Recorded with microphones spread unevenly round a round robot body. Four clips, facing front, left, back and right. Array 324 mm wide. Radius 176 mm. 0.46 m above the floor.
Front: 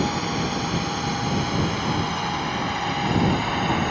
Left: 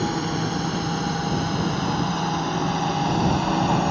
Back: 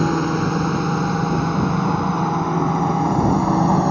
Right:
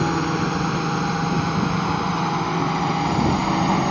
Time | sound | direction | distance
0.0 | a drone | 165° right | ?